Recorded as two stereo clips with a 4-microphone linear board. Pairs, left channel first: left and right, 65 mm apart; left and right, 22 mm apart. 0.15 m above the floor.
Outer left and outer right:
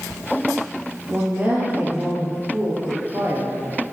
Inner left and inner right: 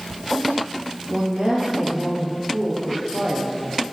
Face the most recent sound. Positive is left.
turn(degrees=-45)  # may be behind; listen again after turning